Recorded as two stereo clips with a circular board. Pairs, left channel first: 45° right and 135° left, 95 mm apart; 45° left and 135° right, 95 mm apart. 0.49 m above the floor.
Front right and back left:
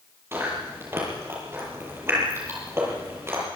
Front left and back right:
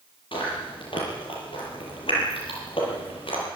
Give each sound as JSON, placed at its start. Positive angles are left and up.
{"t": 0.3, "sound": "chewing", "azimuth_deg": 70, "distance_m": 8.0}